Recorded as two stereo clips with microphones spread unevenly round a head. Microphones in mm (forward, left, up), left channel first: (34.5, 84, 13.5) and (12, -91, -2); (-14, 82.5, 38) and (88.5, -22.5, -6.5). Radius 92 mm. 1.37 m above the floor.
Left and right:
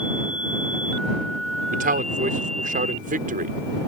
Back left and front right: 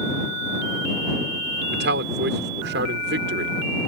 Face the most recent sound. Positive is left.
turn(degrees=-55)